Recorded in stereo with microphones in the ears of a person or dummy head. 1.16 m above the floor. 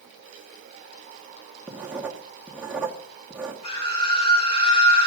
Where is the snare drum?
No snare drum in this recording.